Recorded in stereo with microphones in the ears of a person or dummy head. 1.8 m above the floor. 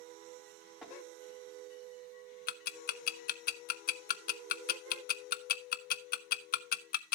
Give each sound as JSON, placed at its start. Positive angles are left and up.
{"t": 0.8, "sound": "tapping", "side_deg": 0, "distance_m": 3.5}
{"t": 2.5, "sound": "ticking", "side_deg": 55, "distance_m": 0.6}